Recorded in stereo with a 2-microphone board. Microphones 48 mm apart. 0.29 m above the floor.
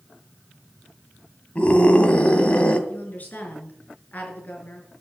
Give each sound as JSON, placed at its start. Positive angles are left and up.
{"t": 1.6, "sound": "a scream", "side_deg": 30, "distance_m": 2.0}
{"t": 2.9, "sound": "a woman speaking", "side_deg": 35, "distance_m": 5.0}